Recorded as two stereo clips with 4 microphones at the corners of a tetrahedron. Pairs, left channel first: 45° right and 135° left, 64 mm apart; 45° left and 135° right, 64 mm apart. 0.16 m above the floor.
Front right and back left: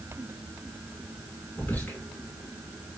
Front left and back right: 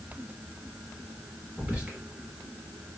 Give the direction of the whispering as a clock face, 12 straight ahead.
3 o'clock.